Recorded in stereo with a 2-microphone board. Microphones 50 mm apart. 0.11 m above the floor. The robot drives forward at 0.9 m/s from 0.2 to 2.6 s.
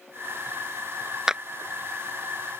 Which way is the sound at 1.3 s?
15° right (ahead or behind).